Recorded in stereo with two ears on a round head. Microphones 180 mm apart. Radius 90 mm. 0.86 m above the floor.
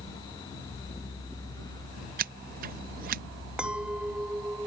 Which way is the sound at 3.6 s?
5° right (ahead or behind).